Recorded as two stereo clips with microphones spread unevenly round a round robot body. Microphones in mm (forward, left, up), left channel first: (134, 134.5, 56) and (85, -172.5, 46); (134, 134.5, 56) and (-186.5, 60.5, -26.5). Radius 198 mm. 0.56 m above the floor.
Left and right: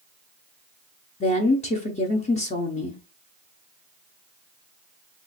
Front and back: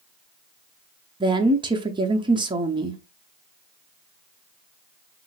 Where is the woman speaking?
140° left, 0.7 m.